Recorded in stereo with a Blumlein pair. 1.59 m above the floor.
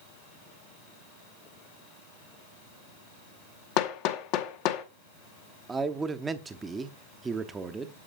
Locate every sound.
3.8 s hammering: 40° left, 0.8 m
5.7 s a man speaking: 15° right, 0.7 m